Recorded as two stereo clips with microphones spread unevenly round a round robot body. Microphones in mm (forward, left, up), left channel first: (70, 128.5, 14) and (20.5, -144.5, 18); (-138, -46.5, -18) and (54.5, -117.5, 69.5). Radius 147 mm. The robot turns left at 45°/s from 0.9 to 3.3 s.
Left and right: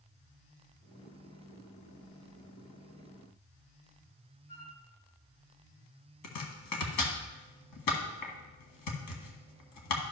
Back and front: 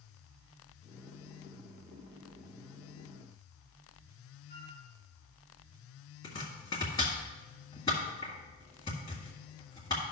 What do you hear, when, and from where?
4.5 s a flute: 70° left, 4 m
6.2 s chopping: 90° left, 1.5 m